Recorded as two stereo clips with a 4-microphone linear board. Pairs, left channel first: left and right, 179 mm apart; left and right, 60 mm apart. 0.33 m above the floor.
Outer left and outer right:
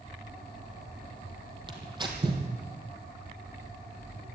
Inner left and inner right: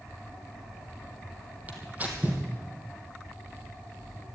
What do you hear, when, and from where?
1.7 s tearing paper: 25° right (ahead or behind), 3 m